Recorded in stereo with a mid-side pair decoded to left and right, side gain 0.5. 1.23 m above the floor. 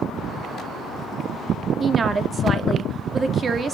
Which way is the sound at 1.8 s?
40° right.